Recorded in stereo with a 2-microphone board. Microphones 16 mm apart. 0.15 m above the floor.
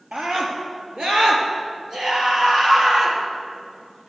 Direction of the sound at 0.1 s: 65° right (ahead or behind).